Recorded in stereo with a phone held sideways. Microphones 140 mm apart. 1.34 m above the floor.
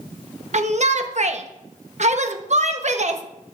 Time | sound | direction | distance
0.5 | a shout | 55° right (ahead or behind) | 0.8 m